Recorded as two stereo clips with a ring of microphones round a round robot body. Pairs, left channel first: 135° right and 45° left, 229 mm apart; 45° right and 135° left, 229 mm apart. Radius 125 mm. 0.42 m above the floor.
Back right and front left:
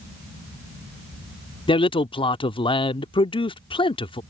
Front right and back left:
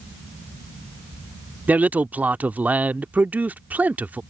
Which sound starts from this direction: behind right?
A man speaking, at 1.7 s.